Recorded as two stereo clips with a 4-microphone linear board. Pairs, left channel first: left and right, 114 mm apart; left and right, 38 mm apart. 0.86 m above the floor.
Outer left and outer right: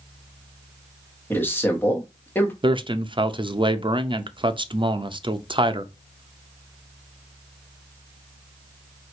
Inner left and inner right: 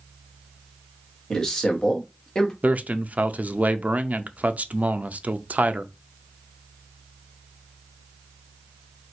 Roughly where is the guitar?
I don't hear a guitar.